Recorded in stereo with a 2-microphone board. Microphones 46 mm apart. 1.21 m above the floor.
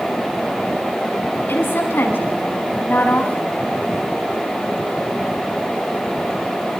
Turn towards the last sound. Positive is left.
turn(degrees=45)  # may be behind; listen again after turning